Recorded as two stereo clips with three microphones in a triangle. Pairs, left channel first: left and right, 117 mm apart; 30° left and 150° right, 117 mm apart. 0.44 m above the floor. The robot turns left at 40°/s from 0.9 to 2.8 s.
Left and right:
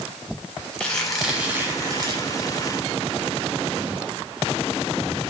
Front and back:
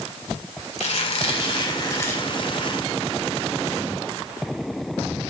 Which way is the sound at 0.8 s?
10° left.